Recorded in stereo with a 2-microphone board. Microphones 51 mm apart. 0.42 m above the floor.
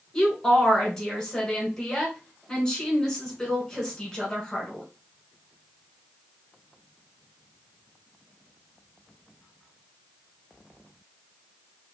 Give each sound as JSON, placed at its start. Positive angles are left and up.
{"t": 0.1, "sound": "a woman speaking", "side_deg": 10, "distance_m": 1.6}